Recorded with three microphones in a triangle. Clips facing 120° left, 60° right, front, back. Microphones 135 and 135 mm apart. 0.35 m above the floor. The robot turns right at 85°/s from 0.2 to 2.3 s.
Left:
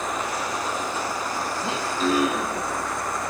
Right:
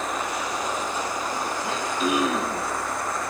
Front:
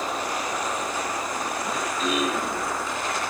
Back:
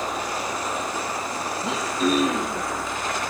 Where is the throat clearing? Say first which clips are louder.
Left 2 dB, back 6 dB; 175° right, 7.5 m; by 2.7 s 120° right, 7.5 m.